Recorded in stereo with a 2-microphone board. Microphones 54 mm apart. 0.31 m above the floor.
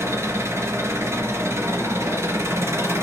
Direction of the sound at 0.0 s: 60° right (ahead or behind).